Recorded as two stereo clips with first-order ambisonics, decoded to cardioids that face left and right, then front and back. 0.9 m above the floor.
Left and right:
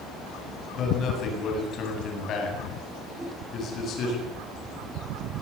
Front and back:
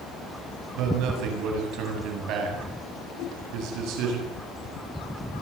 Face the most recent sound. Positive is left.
turn(degrees=-10)